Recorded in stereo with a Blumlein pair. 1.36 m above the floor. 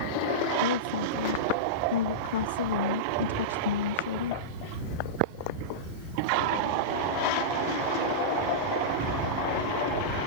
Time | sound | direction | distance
0.6 | a woman speaking | 60° left | ?